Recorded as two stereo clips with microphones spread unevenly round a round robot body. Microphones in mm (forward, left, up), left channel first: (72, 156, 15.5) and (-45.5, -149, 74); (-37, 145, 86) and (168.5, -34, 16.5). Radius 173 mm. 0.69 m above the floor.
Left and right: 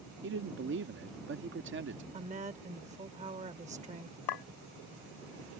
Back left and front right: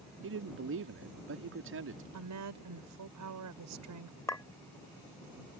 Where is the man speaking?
55° right.